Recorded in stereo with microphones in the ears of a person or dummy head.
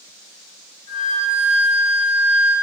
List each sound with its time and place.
0.9 s a flute: 25° left (ahead or behind), 1.5 m